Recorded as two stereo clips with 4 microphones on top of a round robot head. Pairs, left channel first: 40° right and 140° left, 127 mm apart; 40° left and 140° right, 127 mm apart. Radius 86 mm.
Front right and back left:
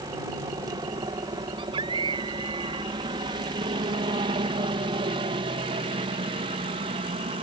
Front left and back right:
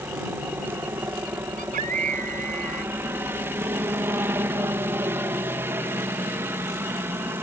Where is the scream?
165° right.